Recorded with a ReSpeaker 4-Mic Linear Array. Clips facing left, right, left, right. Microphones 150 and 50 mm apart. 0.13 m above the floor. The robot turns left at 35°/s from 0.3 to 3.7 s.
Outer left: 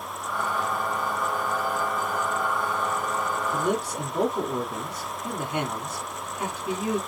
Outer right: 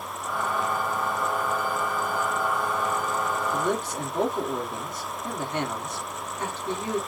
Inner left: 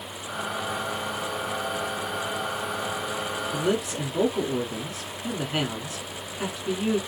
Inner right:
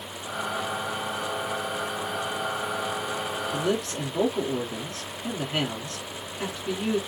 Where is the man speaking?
10° left (ahead or behind), 1.1 m.